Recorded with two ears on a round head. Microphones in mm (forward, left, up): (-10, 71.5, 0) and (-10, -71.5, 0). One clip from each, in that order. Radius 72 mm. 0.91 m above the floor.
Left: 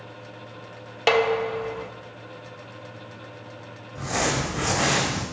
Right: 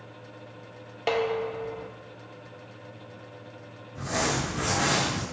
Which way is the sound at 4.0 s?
10° left (ahead or behind).